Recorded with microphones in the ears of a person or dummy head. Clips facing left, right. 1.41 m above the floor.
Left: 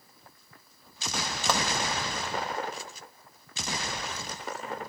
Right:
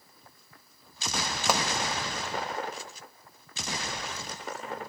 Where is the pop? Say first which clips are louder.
Right 1 dB; 10° right (ahead or behind), 0.7 m.